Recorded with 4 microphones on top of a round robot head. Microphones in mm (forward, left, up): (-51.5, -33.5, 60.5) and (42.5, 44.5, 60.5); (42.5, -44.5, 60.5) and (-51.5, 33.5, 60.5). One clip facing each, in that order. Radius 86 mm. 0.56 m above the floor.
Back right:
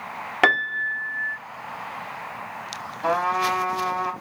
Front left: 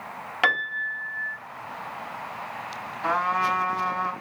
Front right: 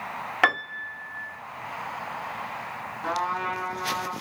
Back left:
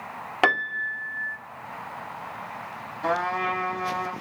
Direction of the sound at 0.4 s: 160° right.